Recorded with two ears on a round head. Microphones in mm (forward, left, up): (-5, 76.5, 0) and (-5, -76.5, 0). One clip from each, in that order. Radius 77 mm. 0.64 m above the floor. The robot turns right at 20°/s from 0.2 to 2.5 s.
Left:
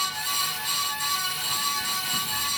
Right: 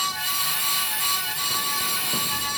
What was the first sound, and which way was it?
Only background noise.